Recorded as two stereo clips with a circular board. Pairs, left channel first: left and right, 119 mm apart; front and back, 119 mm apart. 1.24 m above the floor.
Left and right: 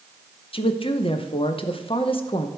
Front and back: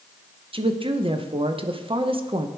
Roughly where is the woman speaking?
Behind left.